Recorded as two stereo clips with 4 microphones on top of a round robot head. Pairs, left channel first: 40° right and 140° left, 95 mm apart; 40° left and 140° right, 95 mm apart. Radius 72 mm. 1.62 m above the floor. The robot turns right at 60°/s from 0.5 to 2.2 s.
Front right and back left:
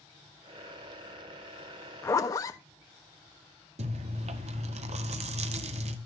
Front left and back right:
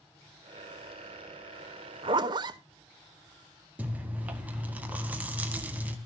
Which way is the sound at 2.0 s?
105° right.